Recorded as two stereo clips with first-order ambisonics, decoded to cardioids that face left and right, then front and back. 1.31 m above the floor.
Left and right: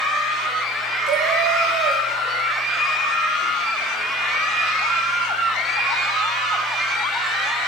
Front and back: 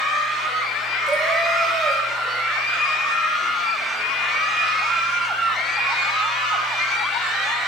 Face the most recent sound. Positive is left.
turn(degrees=-105)